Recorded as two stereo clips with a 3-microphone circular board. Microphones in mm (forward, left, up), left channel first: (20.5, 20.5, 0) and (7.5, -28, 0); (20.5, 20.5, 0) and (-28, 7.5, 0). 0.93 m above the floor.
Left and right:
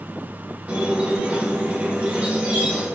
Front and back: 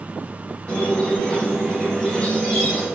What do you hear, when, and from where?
0.7 s a squeak: 55° right, 1.4 m